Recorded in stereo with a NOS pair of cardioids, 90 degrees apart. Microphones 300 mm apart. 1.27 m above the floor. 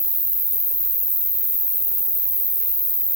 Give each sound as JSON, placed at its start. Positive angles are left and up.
{"t": 0.0, "sound": "an insect", "azimuth_deg": 15, "distance_m": 0.8}